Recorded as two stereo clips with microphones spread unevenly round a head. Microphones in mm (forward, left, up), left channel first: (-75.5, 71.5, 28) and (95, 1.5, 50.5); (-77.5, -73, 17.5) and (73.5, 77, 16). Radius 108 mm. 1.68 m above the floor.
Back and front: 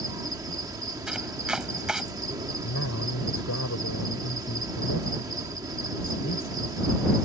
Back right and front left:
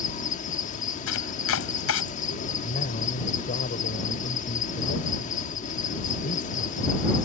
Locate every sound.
0.0 s an insect: 85° right
1.1 s chopping: 110° right
2.6 s a man speaking: 170° left